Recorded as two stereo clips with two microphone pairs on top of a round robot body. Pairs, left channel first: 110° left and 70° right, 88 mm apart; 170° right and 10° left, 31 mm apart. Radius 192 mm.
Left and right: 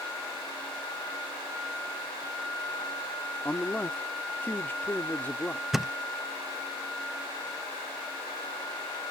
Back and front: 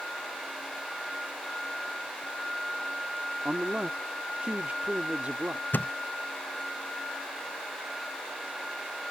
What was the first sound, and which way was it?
A man speaking, 50° left.